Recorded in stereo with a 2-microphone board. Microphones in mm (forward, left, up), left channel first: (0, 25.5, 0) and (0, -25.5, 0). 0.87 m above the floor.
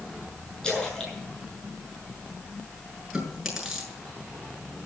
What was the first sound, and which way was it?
A splash, 10° left (ahead or behind).